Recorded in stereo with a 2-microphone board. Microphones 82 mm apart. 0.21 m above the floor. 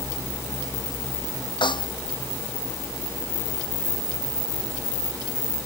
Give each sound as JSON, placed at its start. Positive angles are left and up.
{"t": 1.6, "sound": "a snare drum", "side_deg": 70}